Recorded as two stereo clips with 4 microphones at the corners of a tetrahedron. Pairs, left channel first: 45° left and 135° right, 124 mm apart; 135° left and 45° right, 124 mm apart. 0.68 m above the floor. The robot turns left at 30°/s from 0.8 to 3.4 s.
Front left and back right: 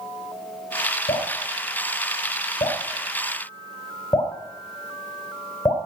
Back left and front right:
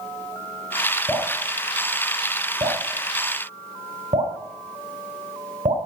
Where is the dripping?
45° left, 3.5 m; by 5.8 s 25° right, 3.5 m.